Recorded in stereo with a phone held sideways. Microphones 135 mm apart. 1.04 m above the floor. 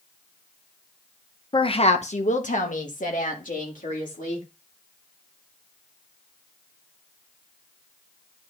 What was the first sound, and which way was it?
A woman speaking, 35° left (ahead or behind).